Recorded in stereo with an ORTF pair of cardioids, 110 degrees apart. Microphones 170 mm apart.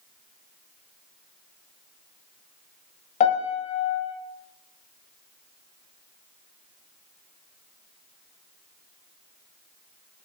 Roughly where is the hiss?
I don't hear a hiss.